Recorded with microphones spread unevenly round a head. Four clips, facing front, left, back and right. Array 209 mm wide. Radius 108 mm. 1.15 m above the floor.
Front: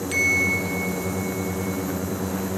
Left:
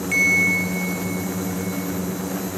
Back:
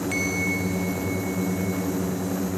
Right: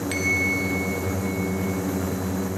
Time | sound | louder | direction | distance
0.1 | a bell | left 6 dB, front 1 dB | 35° right | 0.9 m